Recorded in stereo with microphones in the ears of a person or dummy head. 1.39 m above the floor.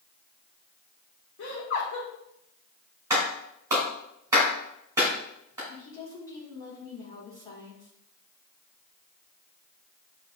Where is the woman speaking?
15° left (ahead or behind), 2.5 m.